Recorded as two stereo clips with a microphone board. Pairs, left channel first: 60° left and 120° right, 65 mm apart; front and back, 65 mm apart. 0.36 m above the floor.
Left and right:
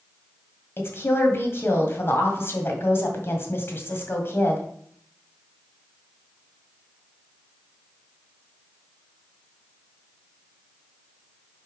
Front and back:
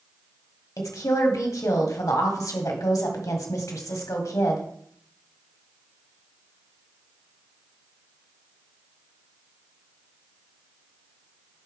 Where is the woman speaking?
15° left, 1.6 m.